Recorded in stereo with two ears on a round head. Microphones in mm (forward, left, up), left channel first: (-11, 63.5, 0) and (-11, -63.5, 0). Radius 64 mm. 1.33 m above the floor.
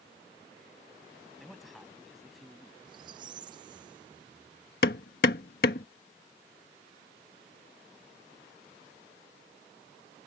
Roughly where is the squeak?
Right.